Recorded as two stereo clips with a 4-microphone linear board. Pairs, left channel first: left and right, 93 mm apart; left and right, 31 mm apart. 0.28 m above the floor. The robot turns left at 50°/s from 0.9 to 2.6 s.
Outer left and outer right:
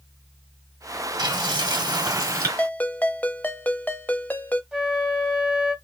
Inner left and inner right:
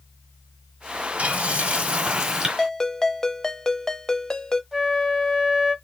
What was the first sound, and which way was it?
Frying, 80° right.